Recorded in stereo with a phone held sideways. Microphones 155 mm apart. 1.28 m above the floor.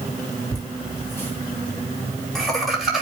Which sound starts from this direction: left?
Laughter, at 0.5 s.